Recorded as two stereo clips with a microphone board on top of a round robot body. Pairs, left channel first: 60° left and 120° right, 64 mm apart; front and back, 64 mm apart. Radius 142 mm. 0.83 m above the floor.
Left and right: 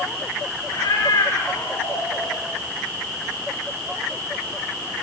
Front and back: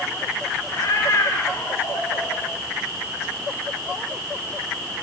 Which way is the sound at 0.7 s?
45° left.